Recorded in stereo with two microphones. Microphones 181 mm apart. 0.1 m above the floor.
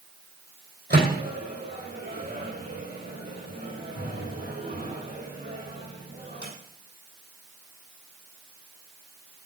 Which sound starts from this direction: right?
A microwave, at 0.9 s.